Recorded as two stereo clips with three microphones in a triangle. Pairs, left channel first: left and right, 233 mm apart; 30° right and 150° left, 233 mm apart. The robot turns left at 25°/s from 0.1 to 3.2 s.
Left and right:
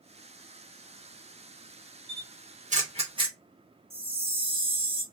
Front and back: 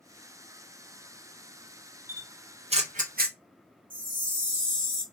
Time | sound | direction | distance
2.1 | a camera shutter | 130° right | 0.7 m
3.9 | a chime | 155° right | 1.3 m